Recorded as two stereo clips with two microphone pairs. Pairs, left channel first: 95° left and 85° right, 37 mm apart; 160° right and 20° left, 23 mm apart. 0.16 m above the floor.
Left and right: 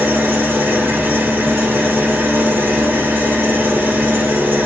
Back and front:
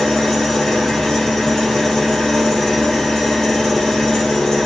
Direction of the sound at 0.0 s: 85° right.